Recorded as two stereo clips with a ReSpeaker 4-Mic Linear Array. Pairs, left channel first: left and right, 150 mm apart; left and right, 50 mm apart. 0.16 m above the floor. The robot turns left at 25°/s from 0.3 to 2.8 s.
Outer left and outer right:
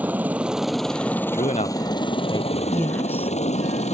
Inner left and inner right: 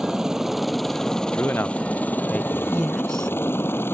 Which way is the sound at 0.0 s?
170° right.